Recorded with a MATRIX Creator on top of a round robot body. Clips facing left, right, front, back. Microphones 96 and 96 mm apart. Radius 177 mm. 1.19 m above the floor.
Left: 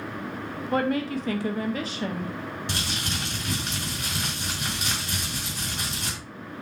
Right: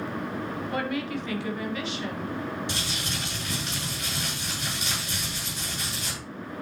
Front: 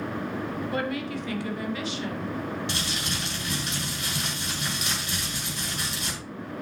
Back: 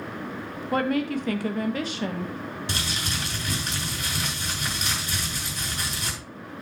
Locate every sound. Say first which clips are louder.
0.7 s a woman speaking: left 7 dB, back 9 dB; 140° left, 1.9 m
2.7 s crumpling: left 1 dB, even; 130° left, 6.5 m